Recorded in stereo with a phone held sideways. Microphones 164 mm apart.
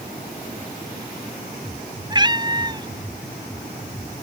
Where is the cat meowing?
30° right (ahead or behind).